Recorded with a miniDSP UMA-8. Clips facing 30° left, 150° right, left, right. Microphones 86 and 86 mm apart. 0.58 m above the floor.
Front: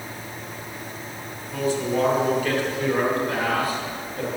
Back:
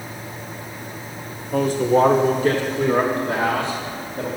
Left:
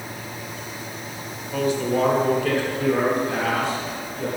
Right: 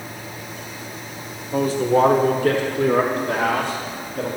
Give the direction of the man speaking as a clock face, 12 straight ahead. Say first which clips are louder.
Back 6 dB, right 4 dB; 5 o'clock.